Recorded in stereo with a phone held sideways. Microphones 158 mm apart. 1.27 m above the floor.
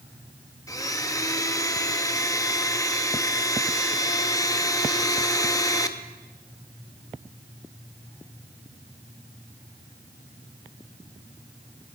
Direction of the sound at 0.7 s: 20° left (ahead or behind).